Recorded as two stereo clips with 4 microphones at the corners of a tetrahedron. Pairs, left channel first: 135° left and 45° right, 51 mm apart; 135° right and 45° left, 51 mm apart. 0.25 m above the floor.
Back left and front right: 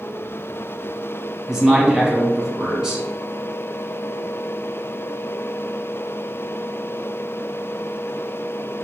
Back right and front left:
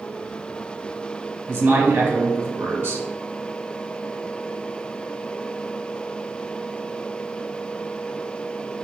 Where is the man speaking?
25° left, 1.6 m.